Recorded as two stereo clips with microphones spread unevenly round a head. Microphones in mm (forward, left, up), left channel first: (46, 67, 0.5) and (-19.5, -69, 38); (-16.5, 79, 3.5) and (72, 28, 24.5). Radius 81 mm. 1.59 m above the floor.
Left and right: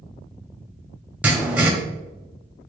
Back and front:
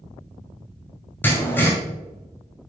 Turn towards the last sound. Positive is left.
turn(degrees=-125)